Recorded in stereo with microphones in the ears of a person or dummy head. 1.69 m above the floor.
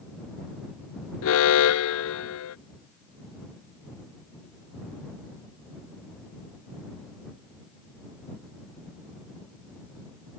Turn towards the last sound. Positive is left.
turn(degrees=70)  # may be behind; listen again after turning